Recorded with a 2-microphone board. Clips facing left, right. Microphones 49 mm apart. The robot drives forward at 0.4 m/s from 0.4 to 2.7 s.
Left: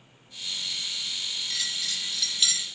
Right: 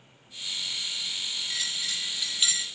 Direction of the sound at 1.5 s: 15° right (ahead or behind).